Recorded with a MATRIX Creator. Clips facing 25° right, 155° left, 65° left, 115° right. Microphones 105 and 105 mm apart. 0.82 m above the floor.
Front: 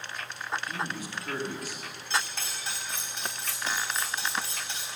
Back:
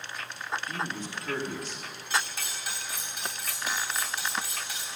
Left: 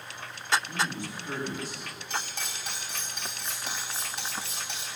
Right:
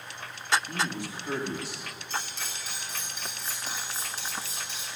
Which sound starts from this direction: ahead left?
Cutlery clinking, at 2.1 s.